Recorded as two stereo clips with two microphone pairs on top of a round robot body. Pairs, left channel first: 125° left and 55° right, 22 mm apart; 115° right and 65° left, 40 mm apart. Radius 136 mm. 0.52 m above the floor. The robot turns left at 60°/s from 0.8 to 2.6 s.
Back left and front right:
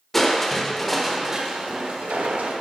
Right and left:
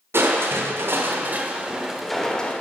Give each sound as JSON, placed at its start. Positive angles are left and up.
{"t": 0.1, "sound": "crushing", "azimuth_deg": 50, "distance_m": 1.1}